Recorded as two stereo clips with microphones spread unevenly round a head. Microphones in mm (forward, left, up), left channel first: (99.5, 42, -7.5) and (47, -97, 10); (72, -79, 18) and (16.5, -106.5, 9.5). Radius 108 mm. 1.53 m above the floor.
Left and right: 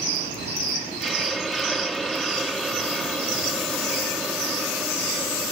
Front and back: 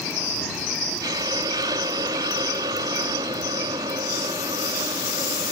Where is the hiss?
160° left.